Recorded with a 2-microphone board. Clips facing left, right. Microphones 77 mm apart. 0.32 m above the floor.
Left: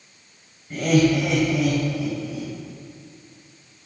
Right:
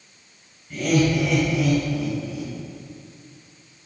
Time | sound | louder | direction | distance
0.7 | laughter | left 2 dB | 30° left (ahead or behind) | 1.2 m